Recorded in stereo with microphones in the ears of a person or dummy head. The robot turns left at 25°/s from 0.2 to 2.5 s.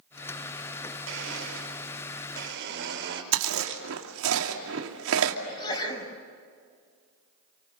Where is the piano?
I don't hear a piano.